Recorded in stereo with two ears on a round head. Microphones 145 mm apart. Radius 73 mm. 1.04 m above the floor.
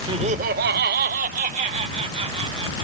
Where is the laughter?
30° right (ahead or behind); by 2.8 s 35° right (ahead or behind).